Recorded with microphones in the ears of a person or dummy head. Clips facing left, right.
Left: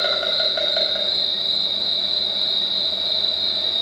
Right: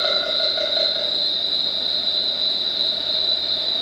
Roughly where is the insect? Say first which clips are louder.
Even; left.